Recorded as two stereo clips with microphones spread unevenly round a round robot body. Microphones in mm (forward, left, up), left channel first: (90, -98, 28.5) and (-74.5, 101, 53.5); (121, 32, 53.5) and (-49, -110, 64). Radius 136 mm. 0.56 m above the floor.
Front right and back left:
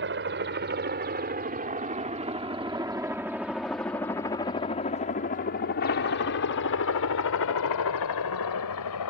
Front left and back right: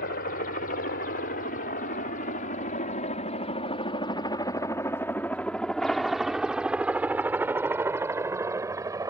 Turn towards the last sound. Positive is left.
turn(degrees=-65)